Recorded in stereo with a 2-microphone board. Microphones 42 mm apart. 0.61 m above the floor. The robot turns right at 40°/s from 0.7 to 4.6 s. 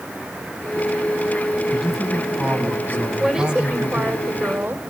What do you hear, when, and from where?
1.7 s a man speaking: 175° right, 5 m; by 4.2 s 75° right, 5 m
3.2 s a woman speaking: 165° right, 2.5 m; by 4.8 s 110° right, 2.5 m